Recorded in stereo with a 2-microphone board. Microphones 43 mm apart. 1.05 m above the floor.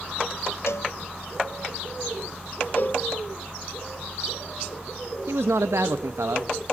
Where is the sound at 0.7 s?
75° left (ahead or behind), 0.8 m.